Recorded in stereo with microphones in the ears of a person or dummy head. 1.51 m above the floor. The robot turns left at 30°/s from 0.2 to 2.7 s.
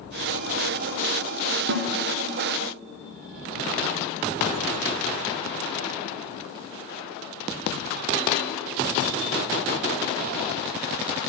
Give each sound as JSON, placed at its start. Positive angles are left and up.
{"t": 1.7, "sound": "a snare drum", "side_deg": -60, "distance_m": 0.5}